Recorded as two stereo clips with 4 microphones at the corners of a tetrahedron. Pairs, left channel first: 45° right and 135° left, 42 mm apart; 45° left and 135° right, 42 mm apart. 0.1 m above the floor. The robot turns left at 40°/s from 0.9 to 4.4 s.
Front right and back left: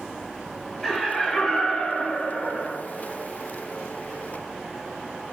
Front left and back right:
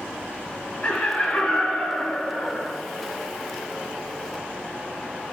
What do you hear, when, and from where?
0.8 s laughter: 15° left, 1.1 m; by 2.7 s 60° right, 1.1 m